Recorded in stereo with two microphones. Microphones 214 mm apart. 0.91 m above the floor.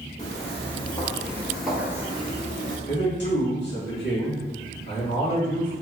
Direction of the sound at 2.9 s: 60° left (ahead or behind).